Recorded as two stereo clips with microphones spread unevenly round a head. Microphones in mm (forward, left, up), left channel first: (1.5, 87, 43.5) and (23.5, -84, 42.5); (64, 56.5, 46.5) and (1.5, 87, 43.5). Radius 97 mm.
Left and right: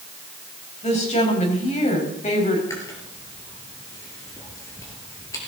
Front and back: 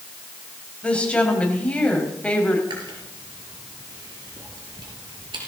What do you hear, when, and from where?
0.8 s a woman speaking: 45° left, 5.5 m
2.7 s chewing: 170° left, 3.5 m